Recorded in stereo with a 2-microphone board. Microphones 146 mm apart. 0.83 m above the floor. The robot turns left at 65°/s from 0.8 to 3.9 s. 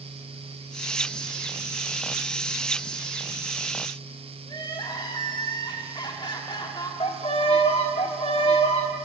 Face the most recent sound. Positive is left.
turn(degrees=45)  # may be behind; listen again after turning